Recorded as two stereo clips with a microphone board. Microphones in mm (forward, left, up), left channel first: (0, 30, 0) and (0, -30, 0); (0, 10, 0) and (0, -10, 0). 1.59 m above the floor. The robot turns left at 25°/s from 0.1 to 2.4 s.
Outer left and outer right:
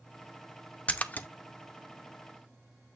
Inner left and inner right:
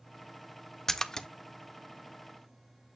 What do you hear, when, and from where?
0.9 s a splash: 20° left (ahead or behind), 0.7 m; by 1.3 s 30° left (ahead or behind), 0.7 m